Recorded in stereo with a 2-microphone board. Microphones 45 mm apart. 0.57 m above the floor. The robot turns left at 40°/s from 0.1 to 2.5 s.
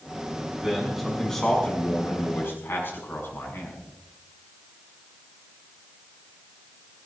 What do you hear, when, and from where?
0.6 s a man speaking: 160° right, 6 m; by 3.8 s 120° left, 6 m